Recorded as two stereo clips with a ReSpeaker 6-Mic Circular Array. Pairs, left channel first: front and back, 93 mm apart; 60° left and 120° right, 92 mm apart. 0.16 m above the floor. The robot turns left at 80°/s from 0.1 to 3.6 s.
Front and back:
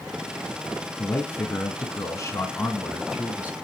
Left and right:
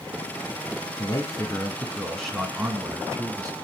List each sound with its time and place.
1.0 s a man speaking: 75° left, 1.6 m; by 3.5 s 130° right, 1.6 m